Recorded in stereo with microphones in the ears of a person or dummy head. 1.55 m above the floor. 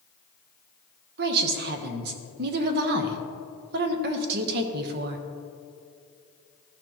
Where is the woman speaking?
50° right (ahead or behind), 1.0 m.